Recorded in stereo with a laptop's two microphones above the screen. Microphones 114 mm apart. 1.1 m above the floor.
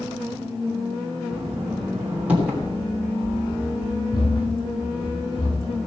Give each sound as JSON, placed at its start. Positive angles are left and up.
{"t": 1.3, "sound": "knocking", "side_deg": -15, "distance_m": 3.0}
{"t": 2.6, "sound": "running footsteps", "side_deg": 45, "distance_m": 5.5}